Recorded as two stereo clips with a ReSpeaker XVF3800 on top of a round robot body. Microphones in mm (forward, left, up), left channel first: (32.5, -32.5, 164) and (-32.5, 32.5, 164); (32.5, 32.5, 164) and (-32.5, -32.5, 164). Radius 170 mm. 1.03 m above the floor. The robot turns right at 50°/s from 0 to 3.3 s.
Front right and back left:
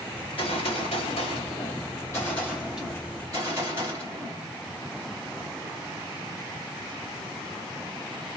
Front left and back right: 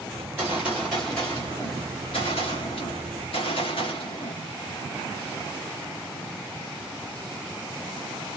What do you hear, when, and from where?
0.2 s a gunshot: 80° right, 0.6 m; by 4.4 s 75° left, 0.6 m